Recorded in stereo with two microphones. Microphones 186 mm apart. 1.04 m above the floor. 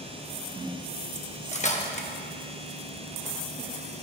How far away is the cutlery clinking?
About 0.9 m.